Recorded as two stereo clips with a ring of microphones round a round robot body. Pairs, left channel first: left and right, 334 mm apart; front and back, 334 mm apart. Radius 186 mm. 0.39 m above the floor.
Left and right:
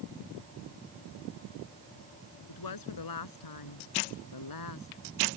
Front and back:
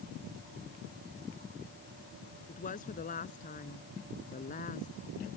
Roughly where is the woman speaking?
Left.